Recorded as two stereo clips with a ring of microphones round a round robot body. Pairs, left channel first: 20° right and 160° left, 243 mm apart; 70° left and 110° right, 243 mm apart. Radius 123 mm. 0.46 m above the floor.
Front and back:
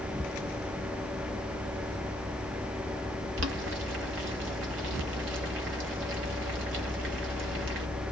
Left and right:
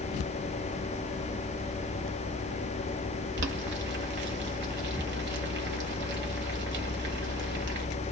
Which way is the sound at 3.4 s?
160° right.